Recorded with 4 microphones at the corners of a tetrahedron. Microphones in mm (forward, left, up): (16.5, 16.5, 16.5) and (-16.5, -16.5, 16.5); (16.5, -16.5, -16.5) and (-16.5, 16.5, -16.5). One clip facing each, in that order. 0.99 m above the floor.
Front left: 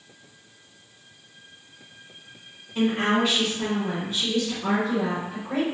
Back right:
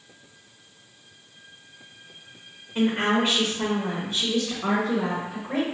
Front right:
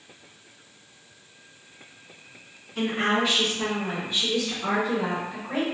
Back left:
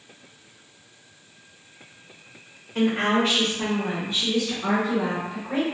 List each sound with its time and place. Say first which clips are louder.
2.8 s a woman speaking: even, back left 3 dB; 170° left, 0.6 m; by 5.6 s 120° right, 1.6 m